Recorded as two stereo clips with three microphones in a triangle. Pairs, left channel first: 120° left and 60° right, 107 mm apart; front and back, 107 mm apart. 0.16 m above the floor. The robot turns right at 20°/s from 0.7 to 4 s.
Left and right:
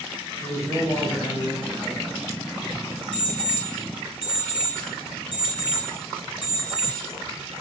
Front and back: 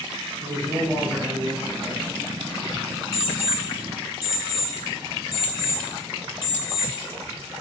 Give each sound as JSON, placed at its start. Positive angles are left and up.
{"t": 0.4, "sound": "a man speaking", "azimuth_deg": -160, "distance_m": 1.2}
{"t": 3.1, "sound": "an alarm clock", "azimuth_deg": 100, "distance_m": 1.6}